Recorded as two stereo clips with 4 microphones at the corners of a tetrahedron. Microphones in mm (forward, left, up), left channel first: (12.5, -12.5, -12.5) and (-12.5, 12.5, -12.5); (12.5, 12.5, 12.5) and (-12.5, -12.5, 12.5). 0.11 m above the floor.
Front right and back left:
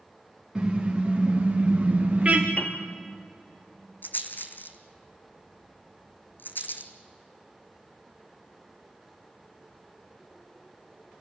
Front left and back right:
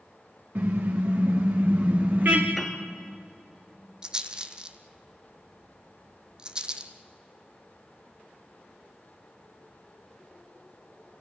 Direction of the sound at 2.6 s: 45° right.